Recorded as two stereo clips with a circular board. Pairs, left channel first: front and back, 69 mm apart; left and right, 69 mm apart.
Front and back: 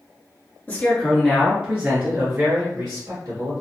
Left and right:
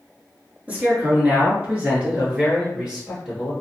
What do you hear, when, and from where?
0.7 s a man speaking: 45° right, 1.2 m; by 3.5 s 170° right, 2 m